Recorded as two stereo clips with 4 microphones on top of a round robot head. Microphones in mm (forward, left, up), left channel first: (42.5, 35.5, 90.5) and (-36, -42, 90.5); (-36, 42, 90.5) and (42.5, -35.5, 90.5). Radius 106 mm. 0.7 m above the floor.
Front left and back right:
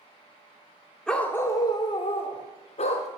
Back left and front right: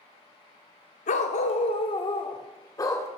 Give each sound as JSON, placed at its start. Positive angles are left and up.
{"t": 1.1, "sound": "a dog barking", "azimuth_deg": 130, "distance_m": 0.7}